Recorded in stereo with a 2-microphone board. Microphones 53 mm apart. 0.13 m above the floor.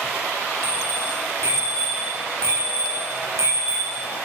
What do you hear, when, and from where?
0.6 s a bicycle bell: 70° right (ahead or behind), 9.5 m; by 4.1 s 80° right, 6.5 m